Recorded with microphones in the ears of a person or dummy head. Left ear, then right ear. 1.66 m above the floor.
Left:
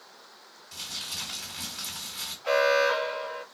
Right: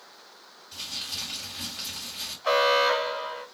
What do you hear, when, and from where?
0.7 s crumpling: 35° left (ahead or behind), 1.5 m
2.4 s an alarm: 20° right (ahead or behind), 1.7 m